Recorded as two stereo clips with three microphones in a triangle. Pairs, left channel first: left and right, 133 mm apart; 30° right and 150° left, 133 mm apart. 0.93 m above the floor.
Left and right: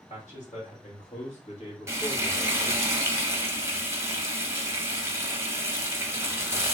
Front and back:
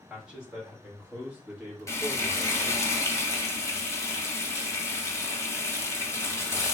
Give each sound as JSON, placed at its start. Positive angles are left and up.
{"t": 0.1, "sound": "a man speaking", "azimuth_deg": 70, "distance_m": 2.5}
{"t": 1.9, "sound": "frying", "azimuth_deg": -55, "distance_m": 0.8}